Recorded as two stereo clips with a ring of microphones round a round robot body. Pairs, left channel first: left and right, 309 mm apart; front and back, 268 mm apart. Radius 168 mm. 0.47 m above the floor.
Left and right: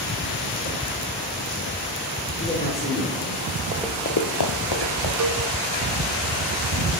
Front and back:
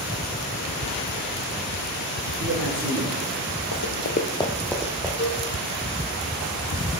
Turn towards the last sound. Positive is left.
turn(degrees=-55)